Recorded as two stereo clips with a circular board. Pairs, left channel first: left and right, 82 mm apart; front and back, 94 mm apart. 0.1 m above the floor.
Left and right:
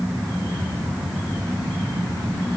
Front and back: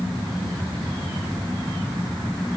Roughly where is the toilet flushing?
No toilet flushing in this recording.